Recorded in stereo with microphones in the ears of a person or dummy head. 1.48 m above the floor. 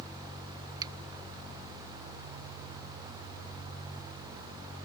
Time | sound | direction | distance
0.8 | a finger snap | 20° right (ahead or behind) | ?